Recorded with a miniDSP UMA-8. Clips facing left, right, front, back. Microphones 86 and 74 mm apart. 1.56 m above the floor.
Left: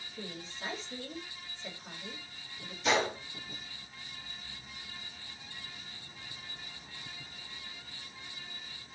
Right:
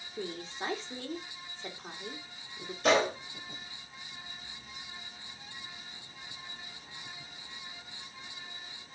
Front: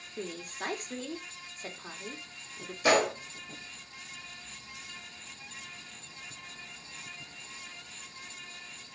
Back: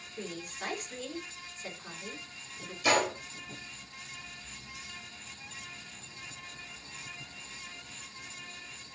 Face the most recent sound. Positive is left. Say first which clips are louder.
# right 4 dB, front 3 dB
turn(degrees=-50)